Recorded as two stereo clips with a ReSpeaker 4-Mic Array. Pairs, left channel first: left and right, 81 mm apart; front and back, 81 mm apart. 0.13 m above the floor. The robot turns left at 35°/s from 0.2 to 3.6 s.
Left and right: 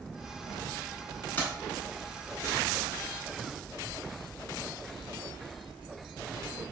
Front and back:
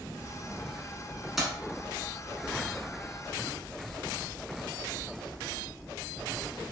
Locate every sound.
1.4 s keys jangling: 95° left, 1.0 m; by 1.5 s 90° left, 1.0 m